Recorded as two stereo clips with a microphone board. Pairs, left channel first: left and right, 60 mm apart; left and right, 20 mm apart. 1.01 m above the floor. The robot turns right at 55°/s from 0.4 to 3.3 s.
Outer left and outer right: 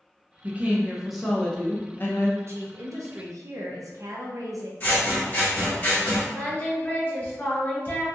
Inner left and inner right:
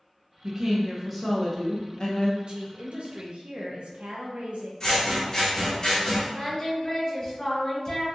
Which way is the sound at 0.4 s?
40° right.